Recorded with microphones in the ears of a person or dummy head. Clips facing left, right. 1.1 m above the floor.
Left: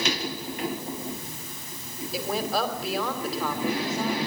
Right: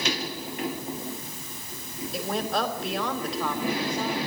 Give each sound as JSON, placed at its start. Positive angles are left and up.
{"t": 2.1, "sound": "a woman speaking", "side_deg": 5, "distance_m": 3.5}